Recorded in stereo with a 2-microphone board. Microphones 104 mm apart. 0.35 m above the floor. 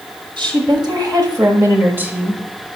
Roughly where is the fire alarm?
I don't hear a fire alarm.